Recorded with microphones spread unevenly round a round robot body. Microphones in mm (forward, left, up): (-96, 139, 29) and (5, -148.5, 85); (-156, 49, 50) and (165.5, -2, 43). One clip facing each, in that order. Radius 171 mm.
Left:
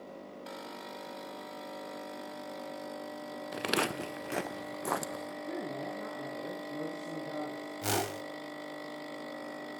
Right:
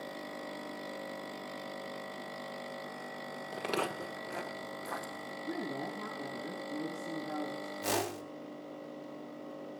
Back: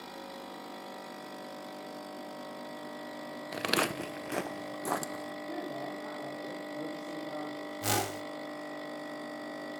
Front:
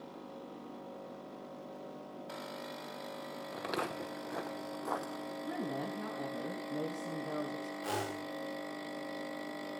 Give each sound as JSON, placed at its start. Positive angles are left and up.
{"t": 3.5, "sound": "footsteps", "azimuth_deg": -175, "distance_m": 0.6}
{"t": 5.4, "sound": "a woman speaking", "azimuth_deg": 20, "distance_m": 6.0}
{"t": 7.8, "sound": "a whoosh", "azimuth_deg": 160, "distance_m": 3.5}